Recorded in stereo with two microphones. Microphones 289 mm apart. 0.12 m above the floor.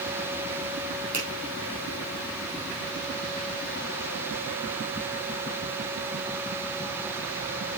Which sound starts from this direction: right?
A finger snap, at 1.1 s.